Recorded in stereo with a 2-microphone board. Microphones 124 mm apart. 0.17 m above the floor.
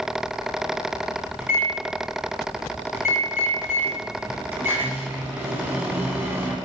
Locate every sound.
1.4 s a microwave: 20° right (ahead or behind), 1.0 m